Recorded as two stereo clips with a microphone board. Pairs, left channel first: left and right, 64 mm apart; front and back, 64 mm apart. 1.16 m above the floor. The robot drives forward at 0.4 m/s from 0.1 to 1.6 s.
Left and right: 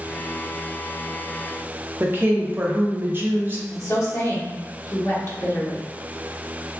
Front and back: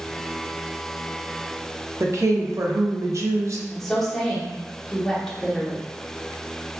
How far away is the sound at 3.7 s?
About 0.9 m.